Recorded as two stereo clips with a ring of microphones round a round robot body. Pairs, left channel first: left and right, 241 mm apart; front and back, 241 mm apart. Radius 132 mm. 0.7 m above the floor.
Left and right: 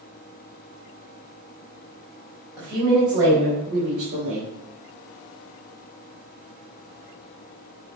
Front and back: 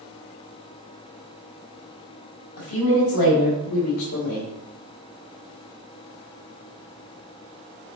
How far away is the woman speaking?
About 4 m.